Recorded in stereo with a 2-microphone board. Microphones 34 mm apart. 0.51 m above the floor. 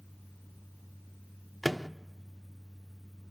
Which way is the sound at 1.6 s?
Centre (ahead or behind).